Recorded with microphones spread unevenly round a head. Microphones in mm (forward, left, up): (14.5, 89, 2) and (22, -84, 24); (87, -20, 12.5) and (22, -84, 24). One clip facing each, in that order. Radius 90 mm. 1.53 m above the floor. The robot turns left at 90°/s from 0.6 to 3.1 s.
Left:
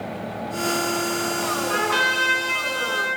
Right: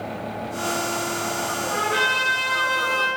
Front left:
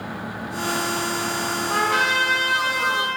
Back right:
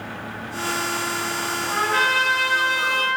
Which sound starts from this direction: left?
A trumpet, at 1.7 s.